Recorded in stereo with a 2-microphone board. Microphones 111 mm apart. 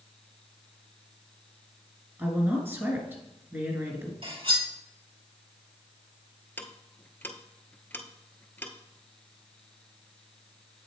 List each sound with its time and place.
2.2 s a woman speaking: 20° right (ahead or behind), 1.5 m
4.2 s cutlery clinking: 50° right (ahead or behind), 1.7 m
6.6 s ticking: 15° left (ahead or behind), 0.7 m